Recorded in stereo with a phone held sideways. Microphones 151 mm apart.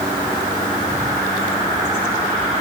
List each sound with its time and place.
Only background noise.